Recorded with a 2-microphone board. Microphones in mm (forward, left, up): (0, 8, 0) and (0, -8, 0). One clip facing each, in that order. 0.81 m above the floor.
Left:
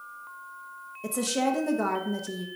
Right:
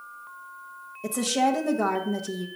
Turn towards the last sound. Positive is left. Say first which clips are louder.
# right 3 dB
turn(degrees=0)  # may be behind; listen again after turning